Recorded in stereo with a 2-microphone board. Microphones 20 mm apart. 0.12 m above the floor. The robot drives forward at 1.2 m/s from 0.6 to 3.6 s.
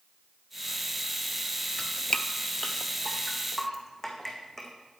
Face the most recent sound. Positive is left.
turn(degrees=10)  # may be behind; listen again after turning